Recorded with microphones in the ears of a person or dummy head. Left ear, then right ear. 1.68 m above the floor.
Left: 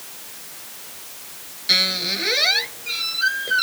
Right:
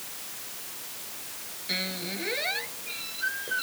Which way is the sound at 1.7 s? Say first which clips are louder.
Left 13 dB; 50° left (ahead or behind).